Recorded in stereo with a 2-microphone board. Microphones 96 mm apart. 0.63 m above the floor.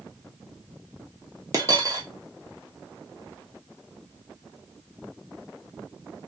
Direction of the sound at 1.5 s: 35° right (ahead or behind).